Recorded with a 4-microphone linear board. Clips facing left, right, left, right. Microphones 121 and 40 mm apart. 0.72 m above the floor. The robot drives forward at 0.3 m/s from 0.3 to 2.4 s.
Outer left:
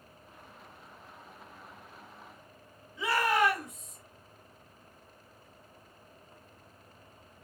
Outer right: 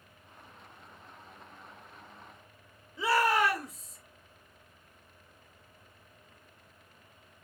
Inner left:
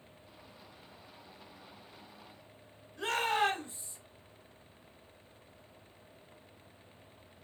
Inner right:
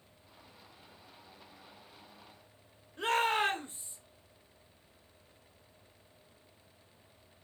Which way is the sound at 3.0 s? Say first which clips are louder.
Outer right 1 dB, inner right 1 dB; 35° right (ahead or behind).